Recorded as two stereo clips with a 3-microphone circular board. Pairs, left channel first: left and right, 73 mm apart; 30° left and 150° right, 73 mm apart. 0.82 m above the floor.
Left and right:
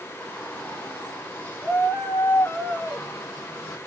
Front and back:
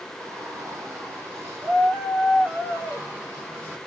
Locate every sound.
0.2 s a shout: 160° left, 6.5 m; by 3.8 s 145° left, 7.5 m